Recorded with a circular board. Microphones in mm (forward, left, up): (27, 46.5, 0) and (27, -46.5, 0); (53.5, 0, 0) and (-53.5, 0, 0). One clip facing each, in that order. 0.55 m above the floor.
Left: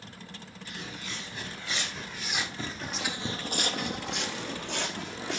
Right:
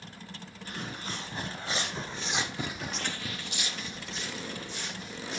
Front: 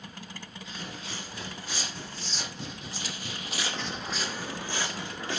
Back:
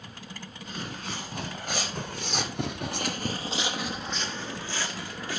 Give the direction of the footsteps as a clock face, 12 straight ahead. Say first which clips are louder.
Right 3 dB, back 5 dB; 5 o'clock.